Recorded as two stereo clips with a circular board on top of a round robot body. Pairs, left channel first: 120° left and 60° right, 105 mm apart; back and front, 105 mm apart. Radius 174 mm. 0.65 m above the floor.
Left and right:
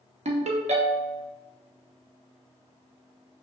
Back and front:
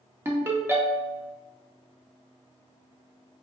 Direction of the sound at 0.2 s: 70° right.